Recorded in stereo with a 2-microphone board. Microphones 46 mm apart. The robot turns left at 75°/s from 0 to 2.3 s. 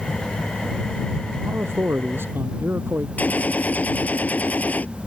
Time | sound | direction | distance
1.4 | a man speaking | 55° right | ?
3.2 | a gunshot | 40° left (ahead or behind) | ?